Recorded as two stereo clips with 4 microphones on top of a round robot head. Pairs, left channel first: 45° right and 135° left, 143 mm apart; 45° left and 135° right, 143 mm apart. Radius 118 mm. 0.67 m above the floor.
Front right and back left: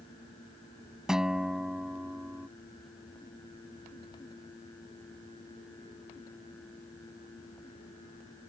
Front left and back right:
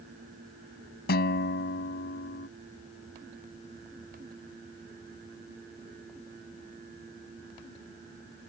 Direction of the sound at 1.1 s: 45° left.